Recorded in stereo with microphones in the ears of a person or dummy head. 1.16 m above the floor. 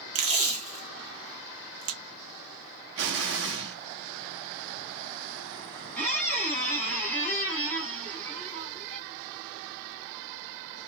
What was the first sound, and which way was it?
Tape being pulled, 35° right (ahead or behind).